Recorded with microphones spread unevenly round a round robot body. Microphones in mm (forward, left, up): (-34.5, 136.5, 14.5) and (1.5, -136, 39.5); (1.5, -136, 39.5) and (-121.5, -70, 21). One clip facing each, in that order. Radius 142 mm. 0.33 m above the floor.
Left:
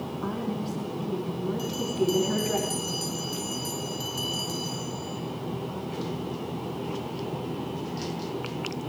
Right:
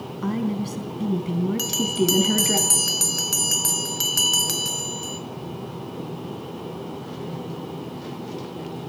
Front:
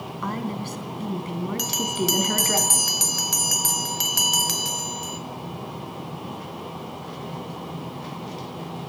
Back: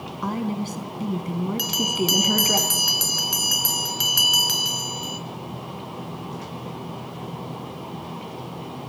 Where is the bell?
75° right, 3 m.